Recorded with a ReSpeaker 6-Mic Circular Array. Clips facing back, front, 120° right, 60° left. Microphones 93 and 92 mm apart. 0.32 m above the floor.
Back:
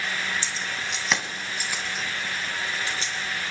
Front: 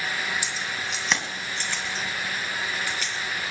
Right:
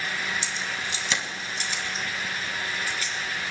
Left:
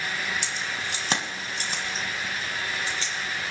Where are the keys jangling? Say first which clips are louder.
Even, even; 75° left, 1.7 m; by 3.1 s 120° left, 2.5 m.